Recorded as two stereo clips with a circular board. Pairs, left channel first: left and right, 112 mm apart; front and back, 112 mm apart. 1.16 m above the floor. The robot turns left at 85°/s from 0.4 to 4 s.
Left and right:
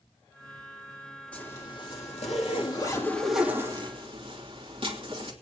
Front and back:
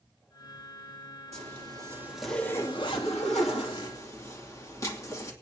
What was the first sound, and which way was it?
A zipper, 170° left.